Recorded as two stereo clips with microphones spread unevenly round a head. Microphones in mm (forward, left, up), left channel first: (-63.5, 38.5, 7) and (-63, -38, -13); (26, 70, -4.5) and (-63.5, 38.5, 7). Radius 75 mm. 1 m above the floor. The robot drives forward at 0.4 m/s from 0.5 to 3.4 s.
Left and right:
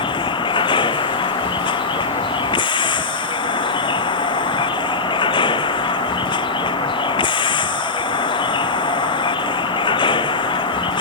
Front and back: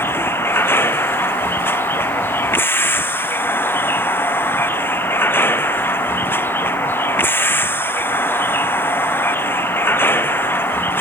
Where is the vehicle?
85° left.